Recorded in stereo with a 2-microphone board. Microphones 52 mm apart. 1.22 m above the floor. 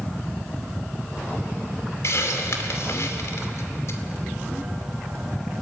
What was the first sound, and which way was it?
A hiss, 65° left (ahead or behind).